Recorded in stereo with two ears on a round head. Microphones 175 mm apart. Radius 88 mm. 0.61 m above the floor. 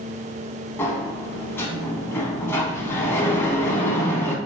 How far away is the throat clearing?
No throat clearing in this recording.